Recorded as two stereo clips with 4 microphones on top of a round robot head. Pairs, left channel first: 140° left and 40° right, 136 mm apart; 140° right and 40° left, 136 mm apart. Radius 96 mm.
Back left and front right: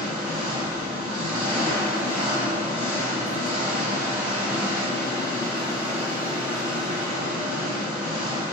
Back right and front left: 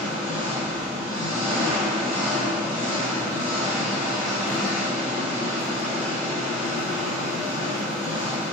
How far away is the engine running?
About 3.5 m.